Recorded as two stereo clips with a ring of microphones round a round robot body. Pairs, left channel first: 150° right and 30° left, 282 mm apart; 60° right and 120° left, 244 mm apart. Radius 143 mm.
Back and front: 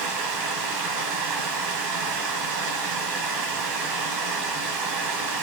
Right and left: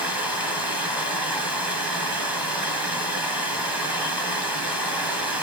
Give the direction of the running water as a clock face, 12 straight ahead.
11 o'clock.